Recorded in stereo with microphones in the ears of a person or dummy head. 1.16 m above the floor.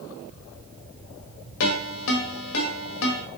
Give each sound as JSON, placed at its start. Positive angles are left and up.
{"t": 1.6, "sound": "a ringtone", "side_deg": 85, "distance_m": 1.4}